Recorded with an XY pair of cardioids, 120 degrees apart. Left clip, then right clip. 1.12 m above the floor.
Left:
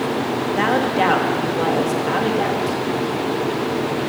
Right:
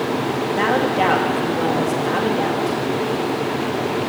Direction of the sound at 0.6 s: 5° left.